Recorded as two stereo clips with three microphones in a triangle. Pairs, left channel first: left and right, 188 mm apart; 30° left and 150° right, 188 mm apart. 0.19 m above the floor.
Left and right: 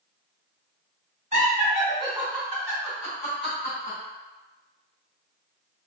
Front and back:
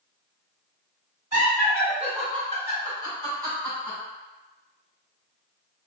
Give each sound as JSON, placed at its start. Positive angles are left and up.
{"t": 1.3, "sound": "laughter", "azimuth_deg": -120, "distance_m": 2.0}